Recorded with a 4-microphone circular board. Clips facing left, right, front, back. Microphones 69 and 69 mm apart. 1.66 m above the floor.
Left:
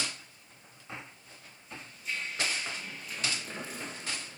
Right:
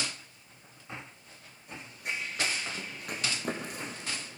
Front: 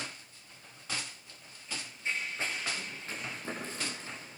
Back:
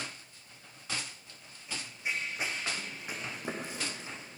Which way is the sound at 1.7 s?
105° right.